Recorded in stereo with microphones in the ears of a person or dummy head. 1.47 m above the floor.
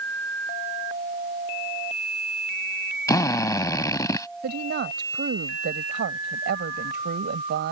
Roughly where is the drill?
Left.